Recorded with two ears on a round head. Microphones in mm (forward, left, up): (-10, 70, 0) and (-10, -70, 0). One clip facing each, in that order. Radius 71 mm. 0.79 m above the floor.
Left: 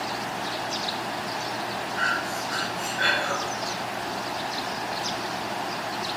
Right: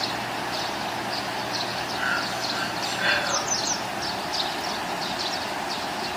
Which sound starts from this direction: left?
Breathing, at 2.0 s.